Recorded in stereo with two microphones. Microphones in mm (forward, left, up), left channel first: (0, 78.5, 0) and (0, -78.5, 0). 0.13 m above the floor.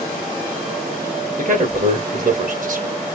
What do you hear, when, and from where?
1.4 s a man speaking: 55° right (ahead or behind), 2.5 m